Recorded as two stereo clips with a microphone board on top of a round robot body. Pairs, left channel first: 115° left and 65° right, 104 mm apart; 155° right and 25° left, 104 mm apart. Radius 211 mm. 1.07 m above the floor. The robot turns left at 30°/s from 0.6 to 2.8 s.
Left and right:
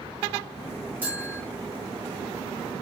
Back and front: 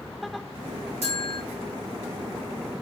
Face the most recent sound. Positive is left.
turn(degrees=-45)